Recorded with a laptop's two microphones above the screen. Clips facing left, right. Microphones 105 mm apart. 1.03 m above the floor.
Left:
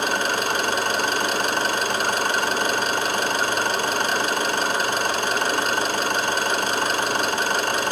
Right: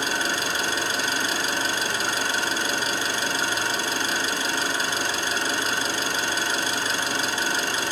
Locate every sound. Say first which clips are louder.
0.0 s an engine running: left 4 dB; 55° left (ahead or behind), 2.0 m